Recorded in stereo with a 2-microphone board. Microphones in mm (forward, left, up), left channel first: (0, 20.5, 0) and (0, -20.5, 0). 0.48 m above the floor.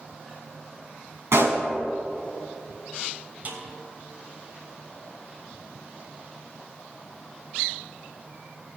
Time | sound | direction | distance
1.3 | a pop | 75° right (ahead or behind) | 4 m
3.5 | a snare drum | 40° right (ahead or behind) | 3 m